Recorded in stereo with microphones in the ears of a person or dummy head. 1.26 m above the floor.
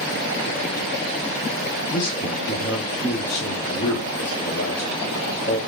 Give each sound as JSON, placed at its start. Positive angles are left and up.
{"t": 1.9, "sound": "a man speaking", "side_deg": 50, "distance_m": 2.0}